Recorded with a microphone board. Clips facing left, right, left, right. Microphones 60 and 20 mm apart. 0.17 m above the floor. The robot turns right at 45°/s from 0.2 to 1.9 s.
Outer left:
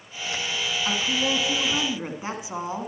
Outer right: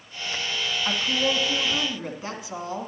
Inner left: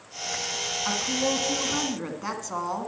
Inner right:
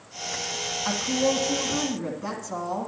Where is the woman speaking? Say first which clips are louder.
Outer right 1 dB, inner right 3 dB; 5° right, 1.2 m; by 2.9 s 40° left, 1.2 m.